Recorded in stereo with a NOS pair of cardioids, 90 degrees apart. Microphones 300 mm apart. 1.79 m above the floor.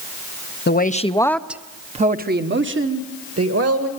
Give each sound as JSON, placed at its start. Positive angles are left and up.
{"t": 0.7, "sound": "a woman speaking", "azimuth_deg": 35, "distance_m": 1.1}